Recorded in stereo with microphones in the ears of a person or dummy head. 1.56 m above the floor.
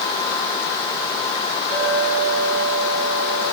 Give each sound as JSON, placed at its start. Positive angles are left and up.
{"t": 1.7, "sound": "a clink", "side_deg": -80, "distance_m": 9.5}